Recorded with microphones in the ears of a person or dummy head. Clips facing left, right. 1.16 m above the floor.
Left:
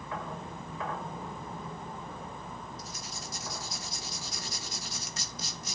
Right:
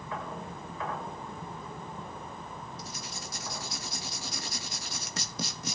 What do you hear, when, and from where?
2.8 s writing: 50° right (ahead or behind), 1.7 m